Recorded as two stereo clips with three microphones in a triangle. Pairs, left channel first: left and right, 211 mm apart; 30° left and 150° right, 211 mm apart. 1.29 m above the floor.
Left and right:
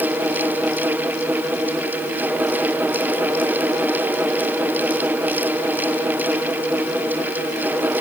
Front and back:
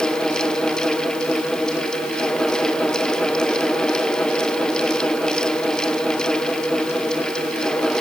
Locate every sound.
Only background noise.